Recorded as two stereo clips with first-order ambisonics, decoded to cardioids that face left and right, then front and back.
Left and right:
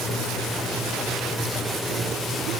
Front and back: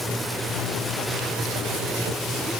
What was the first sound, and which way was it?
Only background noise.